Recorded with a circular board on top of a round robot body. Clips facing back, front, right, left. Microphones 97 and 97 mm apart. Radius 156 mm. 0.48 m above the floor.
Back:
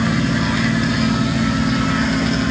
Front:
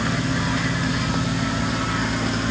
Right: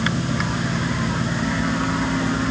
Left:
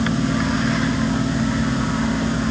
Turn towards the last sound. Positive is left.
No sound to turn to.